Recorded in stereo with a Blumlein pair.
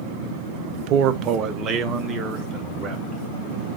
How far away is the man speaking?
About 0.5 m.